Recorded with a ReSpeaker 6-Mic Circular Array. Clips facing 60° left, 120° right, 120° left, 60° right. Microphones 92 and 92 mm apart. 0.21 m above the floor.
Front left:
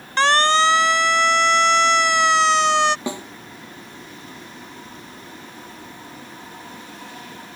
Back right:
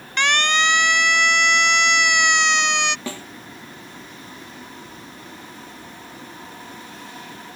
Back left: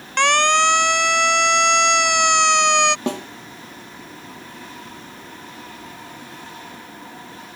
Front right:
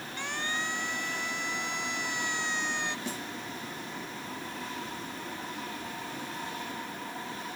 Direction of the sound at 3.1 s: 130° left.